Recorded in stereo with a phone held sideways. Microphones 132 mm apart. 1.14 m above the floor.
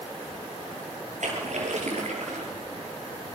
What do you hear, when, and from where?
1.2 s a splash: 70° right (ahead or behind), 5 m